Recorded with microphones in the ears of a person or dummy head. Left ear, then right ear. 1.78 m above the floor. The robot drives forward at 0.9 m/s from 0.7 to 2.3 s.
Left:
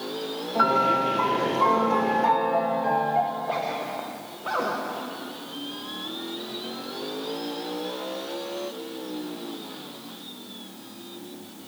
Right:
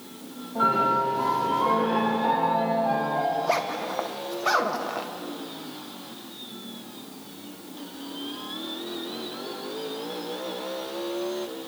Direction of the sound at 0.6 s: 75° left (ahead or behind).